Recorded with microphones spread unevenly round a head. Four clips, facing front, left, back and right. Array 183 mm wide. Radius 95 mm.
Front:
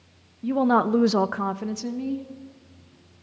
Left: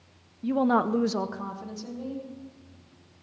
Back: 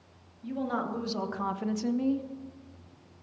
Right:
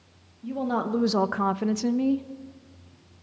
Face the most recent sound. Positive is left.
turn(degrees=-90)